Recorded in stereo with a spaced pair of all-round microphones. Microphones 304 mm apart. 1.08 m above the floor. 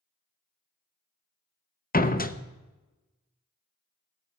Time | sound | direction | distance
1.9 | a door slam | 30° left (ahead or behind) | 0.7 m